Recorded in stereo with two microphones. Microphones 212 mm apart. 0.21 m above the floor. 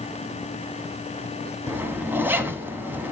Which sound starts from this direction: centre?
A zipper, at 1.7 s.